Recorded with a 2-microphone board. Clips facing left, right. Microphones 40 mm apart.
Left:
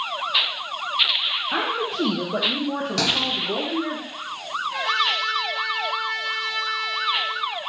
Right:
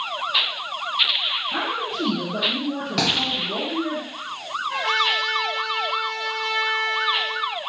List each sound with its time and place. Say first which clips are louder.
1.5 s a woman speaking: left 1 dB; 55° left (ahead or behind), 0.9 m; by 4.0 s 65° left (ahead or behind), 1.6 m
3.0 s a thud: right 1 dB; 15° right (ahead or behind), 1.8 m
4.7 s a trumpet: right 2 dB; 75° right (ahead or behind), 2 m